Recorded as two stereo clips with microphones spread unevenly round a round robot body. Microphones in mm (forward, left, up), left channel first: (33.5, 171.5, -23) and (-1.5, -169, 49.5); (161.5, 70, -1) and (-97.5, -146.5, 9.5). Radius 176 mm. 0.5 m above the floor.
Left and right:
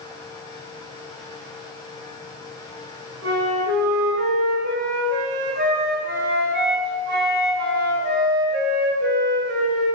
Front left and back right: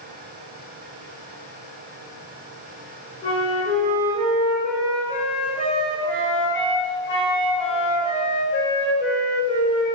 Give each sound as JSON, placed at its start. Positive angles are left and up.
{"t": 3.2, "sound": "a flute", "azimuth_deg": -30, "distance_m": 1.1}